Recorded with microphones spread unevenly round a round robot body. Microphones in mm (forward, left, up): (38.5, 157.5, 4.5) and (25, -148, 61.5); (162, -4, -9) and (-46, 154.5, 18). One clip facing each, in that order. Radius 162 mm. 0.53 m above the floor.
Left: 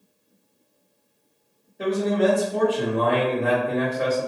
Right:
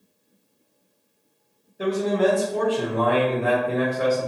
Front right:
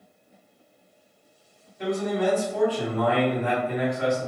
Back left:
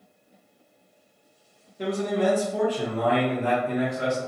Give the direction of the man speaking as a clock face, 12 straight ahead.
7 o'clock.